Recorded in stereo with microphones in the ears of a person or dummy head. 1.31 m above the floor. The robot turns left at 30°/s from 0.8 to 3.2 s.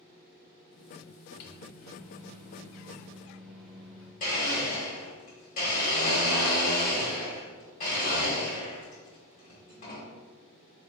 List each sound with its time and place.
1.4 s a microwave: 55° left, 0.9 m; by 4.1 s straight ahead, 0.9 m
4.2 s a blender: 40° left (ahead or behind), 1.4 m